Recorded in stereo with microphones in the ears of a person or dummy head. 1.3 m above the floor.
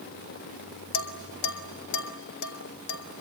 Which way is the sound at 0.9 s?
70° left (ahead or behind).